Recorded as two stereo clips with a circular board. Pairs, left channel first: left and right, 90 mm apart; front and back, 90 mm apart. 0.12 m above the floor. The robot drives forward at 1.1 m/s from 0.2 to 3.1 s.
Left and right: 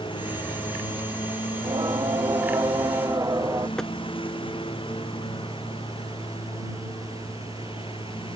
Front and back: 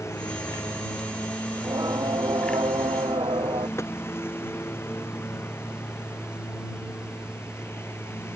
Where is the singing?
130° right; by 3.7 s 145° right.